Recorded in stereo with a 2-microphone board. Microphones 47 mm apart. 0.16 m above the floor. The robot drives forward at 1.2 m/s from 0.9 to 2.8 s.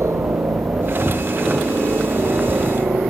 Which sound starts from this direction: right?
A helicopter, at 0.0 s.